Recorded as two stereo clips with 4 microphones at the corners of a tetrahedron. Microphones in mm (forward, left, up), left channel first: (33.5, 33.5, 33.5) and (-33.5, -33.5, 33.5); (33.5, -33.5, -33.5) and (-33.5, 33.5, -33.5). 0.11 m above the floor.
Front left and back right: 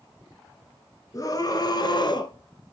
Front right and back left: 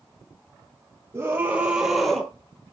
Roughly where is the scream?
Left.